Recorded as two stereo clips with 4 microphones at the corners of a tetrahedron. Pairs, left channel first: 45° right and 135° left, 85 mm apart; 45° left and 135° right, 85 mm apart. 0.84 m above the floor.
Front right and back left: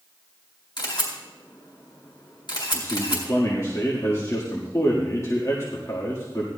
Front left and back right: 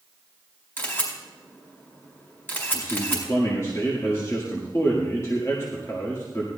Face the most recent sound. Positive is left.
turn(degrees=0)